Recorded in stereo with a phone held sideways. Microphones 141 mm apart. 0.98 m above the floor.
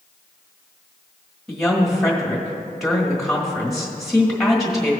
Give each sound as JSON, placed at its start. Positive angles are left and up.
{"t": 1.5, "sound": "a woman speaking", "side_deg": 0, "distance_m": 1.6}